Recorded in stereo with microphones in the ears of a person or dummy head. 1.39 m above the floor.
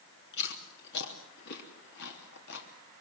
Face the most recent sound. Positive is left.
turn(degrees=60)  # may be behind; listen again after turning